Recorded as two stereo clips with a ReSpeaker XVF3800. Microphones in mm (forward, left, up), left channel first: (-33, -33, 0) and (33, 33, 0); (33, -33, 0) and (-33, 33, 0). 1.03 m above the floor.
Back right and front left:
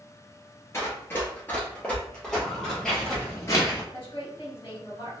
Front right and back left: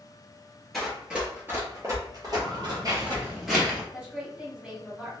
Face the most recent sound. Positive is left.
turn(degrees=-140)